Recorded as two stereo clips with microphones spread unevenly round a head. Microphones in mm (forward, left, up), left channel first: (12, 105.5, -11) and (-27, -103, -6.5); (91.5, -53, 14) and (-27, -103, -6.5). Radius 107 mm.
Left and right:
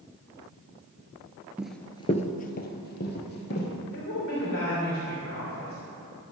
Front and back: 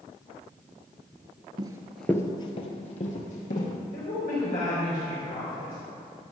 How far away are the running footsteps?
About 1.0 m.